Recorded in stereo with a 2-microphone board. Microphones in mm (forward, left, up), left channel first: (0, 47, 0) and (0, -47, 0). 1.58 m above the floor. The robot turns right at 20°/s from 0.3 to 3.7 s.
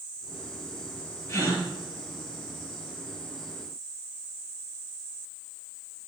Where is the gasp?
30° left (ahead or behind), 5.5 m; by 1.6 s 35° left (ahead or behind), 5.5 m.